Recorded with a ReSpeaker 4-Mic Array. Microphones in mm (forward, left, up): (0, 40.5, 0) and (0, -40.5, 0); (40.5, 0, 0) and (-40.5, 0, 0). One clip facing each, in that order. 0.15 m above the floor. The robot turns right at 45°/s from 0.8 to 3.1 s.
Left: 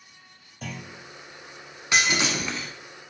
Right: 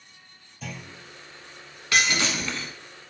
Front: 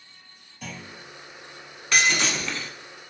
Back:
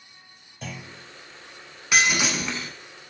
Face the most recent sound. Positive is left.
turn(degrees=165)